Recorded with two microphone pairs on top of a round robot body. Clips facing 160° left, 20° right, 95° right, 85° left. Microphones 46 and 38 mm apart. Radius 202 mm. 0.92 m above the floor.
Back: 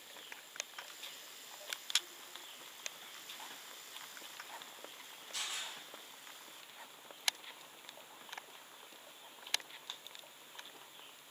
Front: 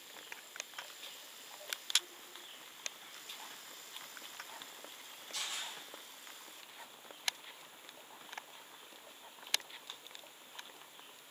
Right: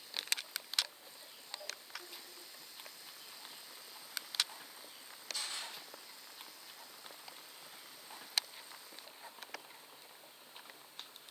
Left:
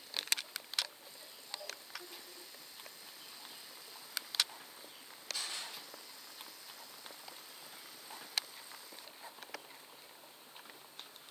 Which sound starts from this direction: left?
A camera shutter, at 5.3 s.